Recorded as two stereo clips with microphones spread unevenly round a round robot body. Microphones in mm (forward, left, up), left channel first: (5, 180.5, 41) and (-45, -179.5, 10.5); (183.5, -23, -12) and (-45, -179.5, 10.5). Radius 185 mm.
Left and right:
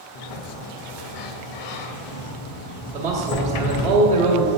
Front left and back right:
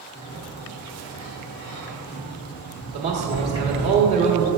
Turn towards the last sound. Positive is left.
turn(degrees=-105)